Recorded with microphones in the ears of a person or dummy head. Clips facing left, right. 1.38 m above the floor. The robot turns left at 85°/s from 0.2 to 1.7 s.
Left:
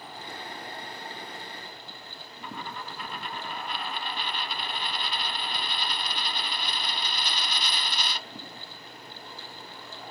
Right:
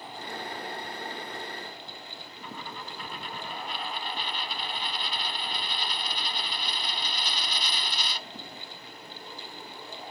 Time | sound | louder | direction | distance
2.4 | a dropped coin | left 3 dB | 55° left (ahead or behind) | ?